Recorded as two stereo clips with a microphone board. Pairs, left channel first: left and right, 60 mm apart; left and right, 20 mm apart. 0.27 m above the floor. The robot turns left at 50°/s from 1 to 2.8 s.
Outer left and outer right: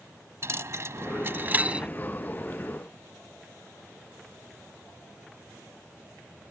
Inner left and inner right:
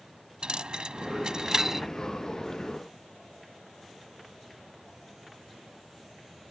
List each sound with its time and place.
0.4 s a dropped coin: 50° right (ahead or behind); by 1.9 s 20° right (ahead or behind)